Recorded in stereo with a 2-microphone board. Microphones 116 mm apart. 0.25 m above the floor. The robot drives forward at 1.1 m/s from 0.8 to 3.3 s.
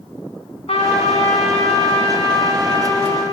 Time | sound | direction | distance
0.7 | a trumpet | 60° left (ahead or behind) | 2.5 m